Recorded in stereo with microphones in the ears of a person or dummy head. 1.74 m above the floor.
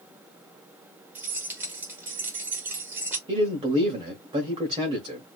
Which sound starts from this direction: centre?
Keys jangling, at 1.1 s.